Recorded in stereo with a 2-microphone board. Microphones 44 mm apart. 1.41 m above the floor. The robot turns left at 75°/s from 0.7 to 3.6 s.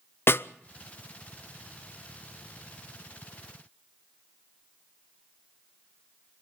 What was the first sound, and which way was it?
A snare drum, 50° left (ahead or behind).